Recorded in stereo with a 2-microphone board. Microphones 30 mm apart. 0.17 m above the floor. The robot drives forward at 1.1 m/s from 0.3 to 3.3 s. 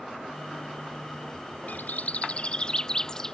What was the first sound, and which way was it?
A bird, 65° left (ahead or behind).